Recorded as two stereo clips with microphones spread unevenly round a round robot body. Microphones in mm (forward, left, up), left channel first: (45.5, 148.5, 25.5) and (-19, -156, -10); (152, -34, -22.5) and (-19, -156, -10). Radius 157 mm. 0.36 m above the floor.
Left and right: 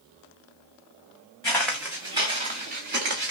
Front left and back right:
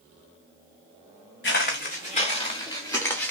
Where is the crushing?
I don't hear crushing.